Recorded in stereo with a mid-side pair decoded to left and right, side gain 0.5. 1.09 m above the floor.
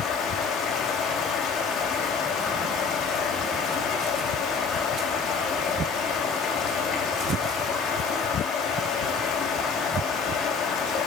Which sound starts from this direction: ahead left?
Running water, at 0.0 s.